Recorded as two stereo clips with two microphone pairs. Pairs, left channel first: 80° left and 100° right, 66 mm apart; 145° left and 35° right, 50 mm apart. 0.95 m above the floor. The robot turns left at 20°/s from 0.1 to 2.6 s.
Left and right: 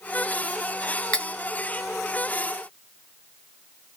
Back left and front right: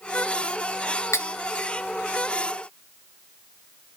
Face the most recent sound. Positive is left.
turn(degrees=120)